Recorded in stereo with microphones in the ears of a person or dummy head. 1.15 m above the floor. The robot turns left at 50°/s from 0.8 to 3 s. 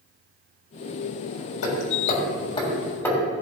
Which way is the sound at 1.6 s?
75° left (ahead or behind).